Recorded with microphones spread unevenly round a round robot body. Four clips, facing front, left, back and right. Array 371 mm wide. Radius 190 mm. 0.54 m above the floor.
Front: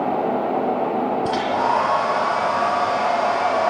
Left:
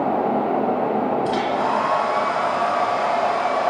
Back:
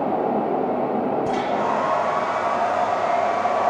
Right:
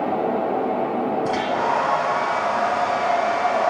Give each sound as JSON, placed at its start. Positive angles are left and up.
{"t": 1.2, "sound": "a hair dryer", "azimuth_deg": 5, "distance_m": 8.0}